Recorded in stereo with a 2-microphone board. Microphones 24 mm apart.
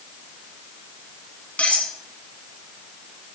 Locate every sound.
1.6 s cutlery clinking: 65° left (ahead or behind), 1.7 m